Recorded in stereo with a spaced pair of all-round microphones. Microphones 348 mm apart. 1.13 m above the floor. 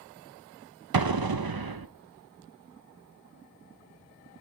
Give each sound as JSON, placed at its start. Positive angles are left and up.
{"t": 0.9, "sound": "an explosion", "side_deg": -85, "distance_m": 0.7}